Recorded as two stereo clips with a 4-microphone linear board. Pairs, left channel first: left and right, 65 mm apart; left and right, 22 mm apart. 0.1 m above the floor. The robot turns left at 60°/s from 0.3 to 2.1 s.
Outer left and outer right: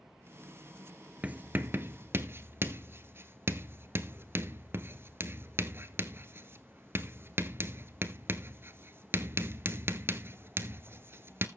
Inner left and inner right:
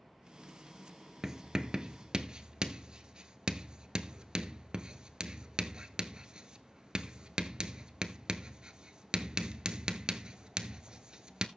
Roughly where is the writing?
Right.